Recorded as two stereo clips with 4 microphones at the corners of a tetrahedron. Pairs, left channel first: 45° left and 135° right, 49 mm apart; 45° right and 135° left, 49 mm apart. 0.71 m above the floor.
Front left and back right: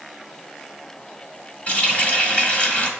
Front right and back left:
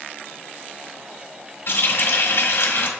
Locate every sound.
1.7 s a running tap: 15° right, 1.4 m